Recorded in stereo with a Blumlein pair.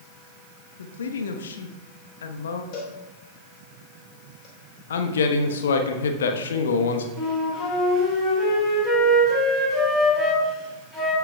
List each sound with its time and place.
0.8 s a woman speaking: 65° left, 1.1 m
2.7 s a cowbell: 35° left, 3.5 m
4.9 s a man speaking: 65° left, 1.1 m
7.2 s a flute: 5° left, 4.5 m